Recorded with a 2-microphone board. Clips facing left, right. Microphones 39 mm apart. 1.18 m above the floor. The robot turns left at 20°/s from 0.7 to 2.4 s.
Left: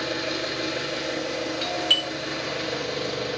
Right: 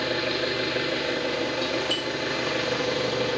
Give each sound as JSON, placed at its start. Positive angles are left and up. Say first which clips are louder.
{"t": 0.0, "sound": "an engine running", "louder": "right 2 dB", "azimuth_deg": -35, "distance_m": 2.5}
{"t": 1.6, "sound": "a doorbell", "louder": "left 3 dB", "side_deg": 50, "distance_m": 1.3}